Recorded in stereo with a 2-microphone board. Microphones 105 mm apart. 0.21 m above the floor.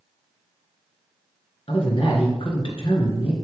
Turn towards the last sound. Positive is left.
turn(degrees=60)  # may be behind; listen again after turning